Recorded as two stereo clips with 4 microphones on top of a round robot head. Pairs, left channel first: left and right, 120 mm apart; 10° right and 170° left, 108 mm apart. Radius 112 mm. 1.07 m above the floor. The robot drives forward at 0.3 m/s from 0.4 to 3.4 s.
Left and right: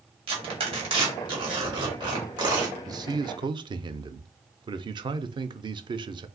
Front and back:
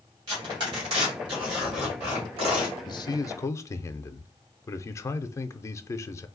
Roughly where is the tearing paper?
Behind right.